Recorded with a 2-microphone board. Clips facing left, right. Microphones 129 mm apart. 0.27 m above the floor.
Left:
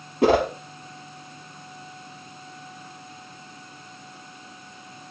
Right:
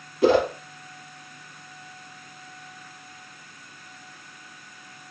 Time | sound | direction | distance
0.2 | a whoosh | 65° left (ahead or behind) | 0.8 m